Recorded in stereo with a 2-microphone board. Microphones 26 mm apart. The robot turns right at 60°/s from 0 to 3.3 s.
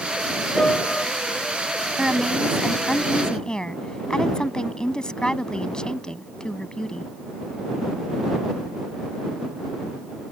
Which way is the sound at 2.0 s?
40° right.